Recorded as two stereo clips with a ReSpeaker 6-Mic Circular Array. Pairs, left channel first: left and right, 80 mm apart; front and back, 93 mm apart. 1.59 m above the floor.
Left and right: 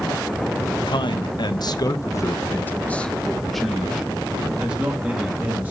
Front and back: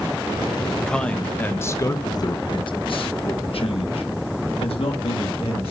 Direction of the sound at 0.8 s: 85° left.